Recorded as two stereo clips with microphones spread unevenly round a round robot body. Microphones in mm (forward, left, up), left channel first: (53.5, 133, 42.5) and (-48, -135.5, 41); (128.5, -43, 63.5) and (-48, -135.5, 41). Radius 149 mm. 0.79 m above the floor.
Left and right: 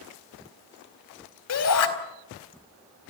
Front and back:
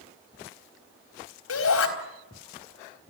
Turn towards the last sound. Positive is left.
turn(degrees=30)